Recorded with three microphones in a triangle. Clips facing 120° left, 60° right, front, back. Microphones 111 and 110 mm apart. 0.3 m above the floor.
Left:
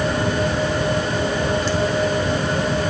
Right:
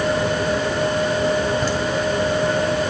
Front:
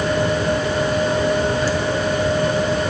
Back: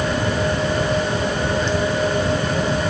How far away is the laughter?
About 1.8 m.